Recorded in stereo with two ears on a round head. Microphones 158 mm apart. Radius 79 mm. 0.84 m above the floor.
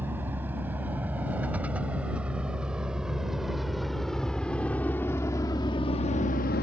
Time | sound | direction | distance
0.0 | a vehicle | 10° right (ahead or behind) | ?